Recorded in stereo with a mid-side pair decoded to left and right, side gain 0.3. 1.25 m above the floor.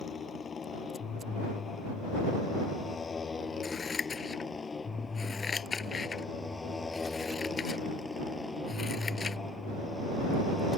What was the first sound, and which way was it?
A motorcycle, 60° left.